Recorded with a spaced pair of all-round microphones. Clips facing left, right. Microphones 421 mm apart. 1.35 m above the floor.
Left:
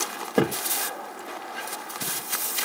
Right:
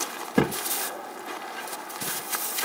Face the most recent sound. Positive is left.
turn(degrees=-20)  # may be behind; listen again after turning